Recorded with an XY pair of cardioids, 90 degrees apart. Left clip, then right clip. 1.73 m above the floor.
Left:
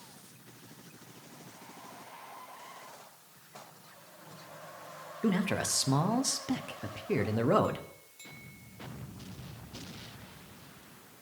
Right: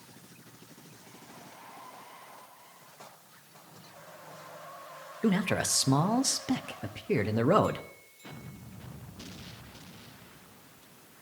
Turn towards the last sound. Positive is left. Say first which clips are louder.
# right 3 dB
turn(degrees=-25)